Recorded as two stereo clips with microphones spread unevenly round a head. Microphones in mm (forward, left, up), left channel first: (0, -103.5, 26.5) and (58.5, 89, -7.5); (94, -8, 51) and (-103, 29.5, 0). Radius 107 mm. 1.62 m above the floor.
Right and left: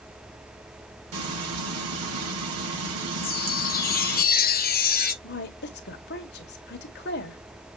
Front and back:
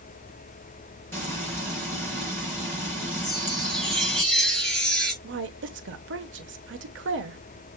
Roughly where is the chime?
Right.